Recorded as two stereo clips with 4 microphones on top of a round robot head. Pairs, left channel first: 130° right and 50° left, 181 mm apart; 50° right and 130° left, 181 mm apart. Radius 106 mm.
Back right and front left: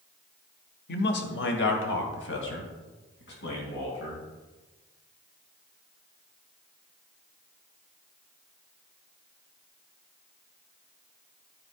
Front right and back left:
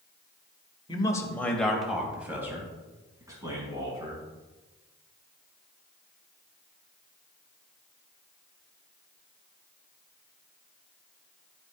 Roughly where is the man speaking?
Right.